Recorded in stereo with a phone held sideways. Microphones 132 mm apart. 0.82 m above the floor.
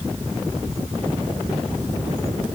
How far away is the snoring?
No snoring in this recording.